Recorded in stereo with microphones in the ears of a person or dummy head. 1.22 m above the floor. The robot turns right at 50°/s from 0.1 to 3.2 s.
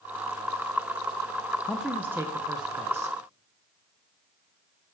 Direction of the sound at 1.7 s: 5° left (ahead or behind).